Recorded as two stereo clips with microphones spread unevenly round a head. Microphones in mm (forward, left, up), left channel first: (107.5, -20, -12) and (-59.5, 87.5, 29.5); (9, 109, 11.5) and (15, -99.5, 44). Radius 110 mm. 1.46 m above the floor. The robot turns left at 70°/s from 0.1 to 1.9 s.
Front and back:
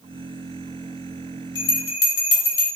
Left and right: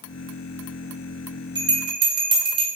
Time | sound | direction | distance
1.6 | a bell | 15° right | 0.8 m